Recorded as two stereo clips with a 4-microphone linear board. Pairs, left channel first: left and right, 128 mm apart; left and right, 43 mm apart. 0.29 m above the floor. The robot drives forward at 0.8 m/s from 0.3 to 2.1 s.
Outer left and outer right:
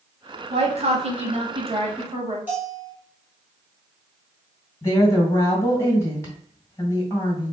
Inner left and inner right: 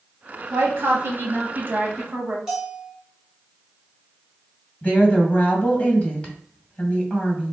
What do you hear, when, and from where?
0.5 s a woman speaking: 50° right (ahead or behind), 1.5 m; by 2.4 s 40° right (ahead or behind), 1.6 m
2.5 s a bell: 10° right (ahead or behind), 2 m
4.8 s a woman speaking: 20° left (ahead or behind), 2 m